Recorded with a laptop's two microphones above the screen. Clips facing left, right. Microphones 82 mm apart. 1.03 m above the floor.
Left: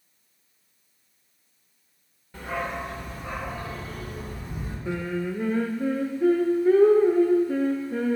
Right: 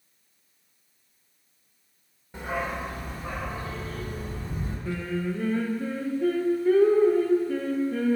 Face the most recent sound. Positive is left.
turn(degrees=20)  # may be behind; listen again after turning